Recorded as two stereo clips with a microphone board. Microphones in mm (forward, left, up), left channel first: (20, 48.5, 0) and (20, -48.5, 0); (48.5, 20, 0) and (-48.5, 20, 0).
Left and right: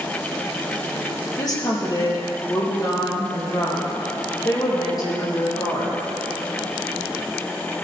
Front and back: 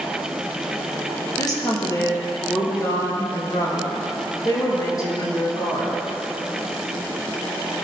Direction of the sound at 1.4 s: 45° left.